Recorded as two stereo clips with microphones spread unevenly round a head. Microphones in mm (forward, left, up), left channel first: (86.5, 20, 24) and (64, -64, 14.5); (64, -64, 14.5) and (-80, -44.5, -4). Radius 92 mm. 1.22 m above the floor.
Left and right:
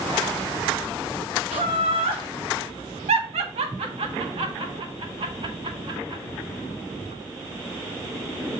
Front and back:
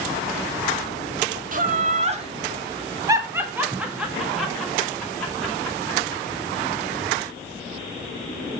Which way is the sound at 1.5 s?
155° right.